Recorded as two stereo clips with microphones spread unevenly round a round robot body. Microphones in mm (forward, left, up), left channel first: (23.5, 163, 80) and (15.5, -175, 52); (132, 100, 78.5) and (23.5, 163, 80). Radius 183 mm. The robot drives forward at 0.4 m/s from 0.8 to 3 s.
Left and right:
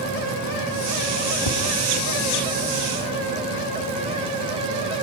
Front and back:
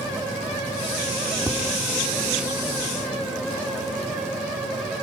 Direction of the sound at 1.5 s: 80° left.